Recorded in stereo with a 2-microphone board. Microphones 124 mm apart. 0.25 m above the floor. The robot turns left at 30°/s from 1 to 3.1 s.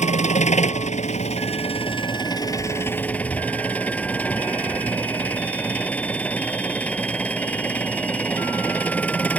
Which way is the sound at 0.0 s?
75° left.